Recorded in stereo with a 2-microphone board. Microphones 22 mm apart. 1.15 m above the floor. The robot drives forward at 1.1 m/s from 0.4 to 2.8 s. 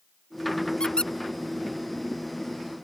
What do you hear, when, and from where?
0.8 s a squeak: 40° left (ahead or behind); by 1.1 s 50° left (ahead or behind)